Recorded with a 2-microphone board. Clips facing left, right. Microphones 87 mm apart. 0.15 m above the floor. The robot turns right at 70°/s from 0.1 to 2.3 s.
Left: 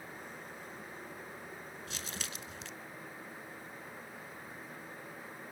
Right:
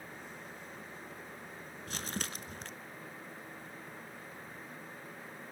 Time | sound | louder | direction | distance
1.9 | crumpling | right 7 dB | 105° right | 0.7 m